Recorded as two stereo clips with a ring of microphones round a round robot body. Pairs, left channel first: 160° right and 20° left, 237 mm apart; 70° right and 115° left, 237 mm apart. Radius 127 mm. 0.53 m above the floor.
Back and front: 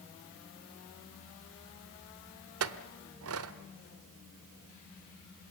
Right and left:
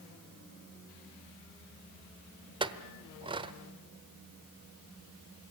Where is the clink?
45° left, 1.1 m.